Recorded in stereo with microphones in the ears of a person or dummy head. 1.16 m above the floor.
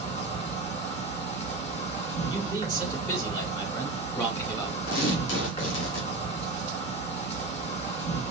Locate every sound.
0.0 s an insect: 35° left (ahead or behind), 2.5 m
2.3 s a man speaking: 20° left (ahead or behind), 1.7 m
4.9 s tearing paper: 70° left (ahead or behind), 1.3 m